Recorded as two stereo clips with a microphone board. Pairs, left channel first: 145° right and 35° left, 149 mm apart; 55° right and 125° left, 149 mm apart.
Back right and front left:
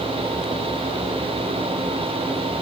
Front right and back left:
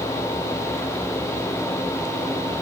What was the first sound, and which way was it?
Only background noise.